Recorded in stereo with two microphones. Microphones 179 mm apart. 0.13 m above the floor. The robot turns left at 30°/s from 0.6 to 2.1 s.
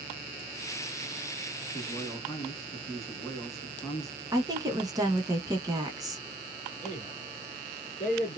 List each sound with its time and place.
1.7 s a man speaking: 20° left (ahead or behind), 1.0 m
4.3 s a woman speaking: 20° right (ahead or behind), 1.1 m
6.8 s a man speaking: 35° left (ahead or behind), 1.3 m